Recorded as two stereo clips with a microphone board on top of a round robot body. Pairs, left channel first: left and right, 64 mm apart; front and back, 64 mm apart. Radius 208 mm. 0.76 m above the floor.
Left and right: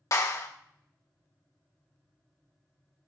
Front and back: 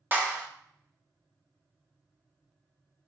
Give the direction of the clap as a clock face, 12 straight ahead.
8 o'clock.